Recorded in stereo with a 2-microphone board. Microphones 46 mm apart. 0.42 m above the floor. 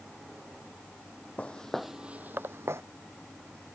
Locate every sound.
1.4 s footsteps: 30° left (ahead or behind); by 2.8 s 70° right (ahead or behind)